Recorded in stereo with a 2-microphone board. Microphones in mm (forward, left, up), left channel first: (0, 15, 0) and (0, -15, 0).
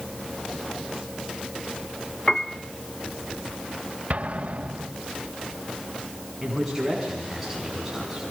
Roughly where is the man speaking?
Centre.